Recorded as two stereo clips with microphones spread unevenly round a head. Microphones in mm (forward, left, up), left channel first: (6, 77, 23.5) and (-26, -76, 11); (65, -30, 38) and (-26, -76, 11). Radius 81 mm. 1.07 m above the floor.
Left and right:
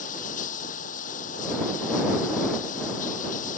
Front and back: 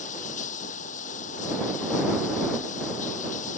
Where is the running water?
30° left.